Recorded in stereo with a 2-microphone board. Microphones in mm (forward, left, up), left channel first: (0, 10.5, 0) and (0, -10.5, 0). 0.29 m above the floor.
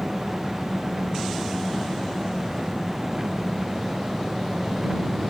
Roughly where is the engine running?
Right.